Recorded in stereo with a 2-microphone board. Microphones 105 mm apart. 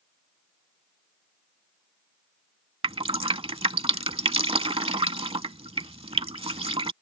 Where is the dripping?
65° right (ahead or behind).